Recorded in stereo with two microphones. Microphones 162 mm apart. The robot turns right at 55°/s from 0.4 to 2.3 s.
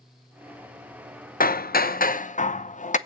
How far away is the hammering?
About 0.7 m.